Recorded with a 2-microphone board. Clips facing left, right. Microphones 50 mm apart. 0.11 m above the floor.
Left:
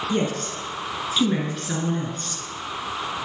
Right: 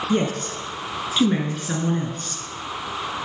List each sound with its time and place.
0.1 s a woman speaking: 15° right (ahead or behind), 1.1 m